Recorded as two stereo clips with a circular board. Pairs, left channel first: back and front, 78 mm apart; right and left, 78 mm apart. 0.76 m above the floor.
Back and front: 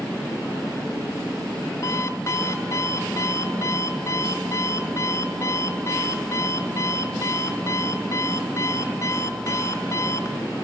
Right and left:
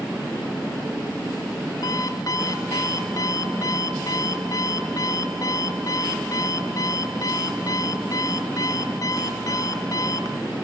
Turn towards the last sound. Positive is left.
turn(degrees=-130)